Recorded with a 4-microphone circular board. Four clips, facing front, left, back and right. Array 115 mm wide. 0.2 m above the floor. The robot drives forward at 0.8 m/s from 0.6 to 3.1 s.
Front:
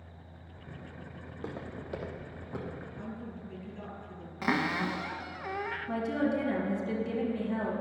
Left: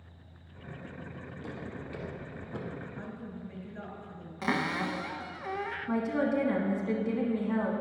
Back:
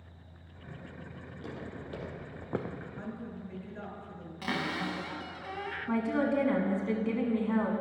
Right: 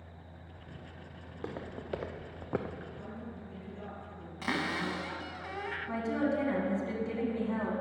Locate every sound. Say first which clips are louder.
1.2 s footsteps: right 2 dB, front 2 dB; 55° right, 3 m; by 2.8 s 150° right, 1.2 m
3.0 s a woman speaking: left 2 dB, back 1 dB; 135° left, 2.5 m; by 4.3 s 140° left, 2.5 m
4.4 s a cupboard door: left 3 dB, front 4 dB; 30° left, 0.7 m
5.9 s a woman speaking: left 3 dB, back 2 dB; 170° left, 1.9 m